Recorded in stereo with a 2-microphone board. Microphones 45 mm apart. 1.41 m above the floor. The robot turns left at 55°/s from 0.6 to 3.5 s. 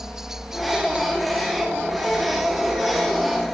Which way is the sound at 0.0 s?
10° right.